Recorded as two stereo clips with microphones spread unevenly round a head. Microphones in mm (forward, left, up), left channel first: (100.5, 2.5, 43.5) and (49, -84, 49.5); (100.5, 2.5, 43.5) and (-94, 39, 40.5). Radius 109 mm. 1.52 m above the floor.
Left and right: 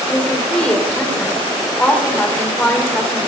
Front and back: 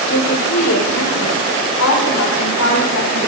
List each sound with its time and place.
0.1 s a woman speaking: 15° right, 5 m